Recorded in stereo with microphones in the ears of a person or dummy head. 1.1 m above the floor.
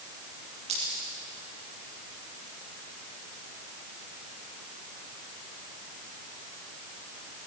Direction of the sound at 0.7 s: 25° right (ahead or behind).